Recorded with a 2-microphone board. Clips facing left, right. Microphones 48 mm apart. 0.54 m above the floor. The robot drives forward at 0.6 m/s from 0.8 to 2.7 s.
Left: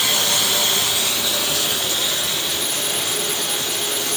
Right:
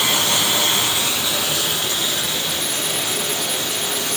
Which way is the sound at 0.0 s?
20° right (ahead or behind).